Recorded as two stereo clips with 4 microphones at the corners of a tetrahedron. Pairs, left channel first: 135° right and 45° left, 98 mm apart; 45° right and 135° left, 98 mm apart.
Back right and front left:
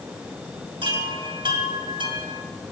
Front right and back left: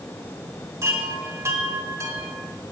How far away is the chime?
About 2.5 m.